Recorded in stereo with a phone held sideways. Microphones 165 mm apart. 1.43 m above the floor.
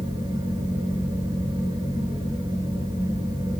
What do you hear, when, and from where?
0.0 s a fan: 25° right (ahead or behind), 0.9 m